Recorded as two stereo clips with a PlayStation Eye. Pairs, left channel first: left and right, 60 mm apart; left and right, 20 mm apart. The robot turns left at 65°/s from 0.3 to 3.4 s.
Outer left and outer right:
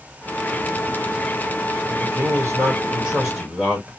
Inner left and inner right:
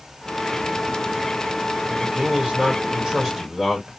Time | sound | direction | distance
1.9 | a man speaking | 65° right | 1.2 m